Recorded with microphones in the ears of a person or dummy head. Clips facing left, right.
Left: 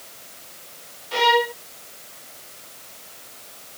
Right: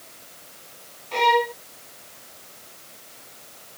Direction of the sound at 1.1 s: 10° left (ahead or behind).